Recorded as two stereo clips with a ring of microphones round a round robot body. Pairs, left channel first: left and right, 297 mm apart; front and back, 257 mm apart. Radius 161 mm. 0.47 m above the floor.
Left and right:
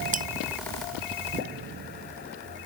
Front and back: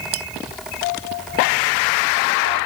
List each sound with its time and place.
0.1 s cutlery clinking: 155° right